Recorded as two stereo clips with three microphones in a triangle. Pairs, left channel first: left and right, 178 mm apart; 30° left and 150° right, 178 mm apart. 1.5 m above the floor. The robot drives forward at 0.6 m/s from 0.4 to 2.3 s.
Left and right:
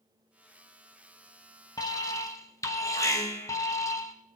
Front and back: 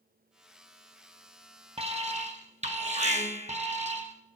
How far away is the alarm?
About 1.5 m.